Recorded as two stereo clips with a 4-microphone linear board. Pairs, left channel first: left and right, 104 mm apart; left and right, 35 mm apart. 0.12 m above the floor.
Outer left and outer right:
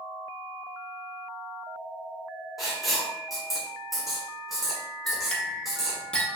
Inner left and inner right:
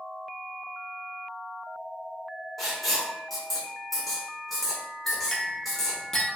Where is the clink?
10° left (ahead or behind), 0.8 m.